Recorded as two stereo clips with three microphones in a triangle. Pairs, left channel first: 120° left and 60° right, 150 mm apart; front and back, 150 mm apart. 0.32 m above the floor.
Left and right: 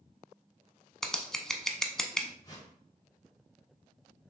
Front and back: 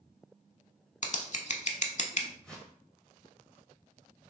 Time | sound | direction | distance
1.0 | scissors | 35° left | 0.6 m
2.4 | a whoosh | 80° left | 1.3 m